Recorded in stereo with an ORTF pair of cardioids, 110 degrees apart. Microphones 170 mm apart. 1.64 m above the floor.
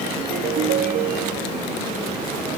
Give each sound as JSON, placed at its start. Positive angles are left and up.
{"t": 0.2, "sound": "a ringtone", "azimuth_deg": -65}